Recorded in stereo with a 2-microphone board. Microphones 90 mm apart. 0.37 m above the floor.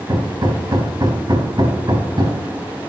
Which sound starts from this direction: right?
Hammering, at 0.1 s.